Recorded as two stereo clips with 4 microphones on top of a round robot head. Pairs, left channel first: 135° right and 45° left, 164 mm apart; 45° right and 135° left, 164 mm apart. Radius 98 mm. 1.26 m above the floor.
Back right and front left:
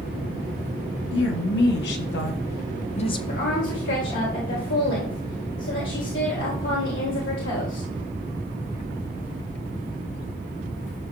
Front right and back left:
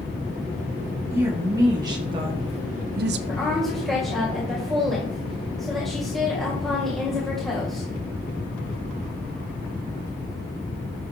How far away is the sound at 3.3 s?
About 1.9 m.